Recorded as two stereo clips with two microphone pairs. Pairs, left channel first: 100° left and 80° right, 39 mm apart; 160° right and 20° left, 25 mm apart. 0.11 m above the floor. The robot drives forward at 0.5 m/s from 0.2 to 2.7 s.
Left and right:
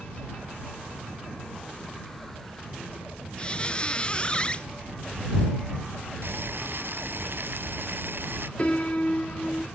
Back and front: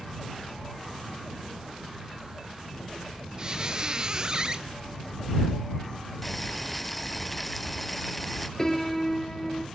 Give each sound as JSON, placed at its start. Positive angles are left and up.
{"t": 3.4, "sound": "a squeak", "azimuth_deg": 55, "distance_m": 0.6}
{"t": 6.2, "sound": "boiling", "azimuth_deg": -75, "distance_m": 0.7}
{"t": 8.6, "sound": "a piano", "azimuth_deg": 130, "distance_m": 1.8}